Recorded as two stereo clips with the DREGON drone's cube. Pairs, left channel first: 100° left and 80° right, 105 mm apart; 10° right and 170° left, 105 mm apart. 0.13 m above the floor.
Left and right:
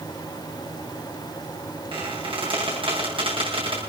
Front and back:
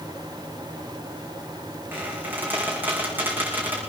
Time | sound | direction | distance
1.9 | a squeak | 115° right | 5 m